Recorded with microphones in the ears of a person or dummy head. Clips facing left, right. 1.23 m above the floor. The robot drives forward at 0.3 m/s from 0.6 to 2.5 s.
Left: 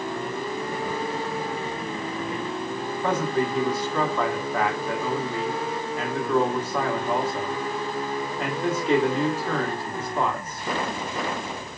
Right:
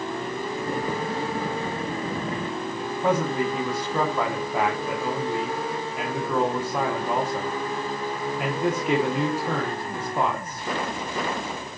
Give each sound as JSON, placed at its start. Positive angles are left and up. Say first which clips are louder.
{"t": 3.0, "sound": "a man speaking", "louder": "right 1 dB", "side_deg": -10, "distance_m": 0.8}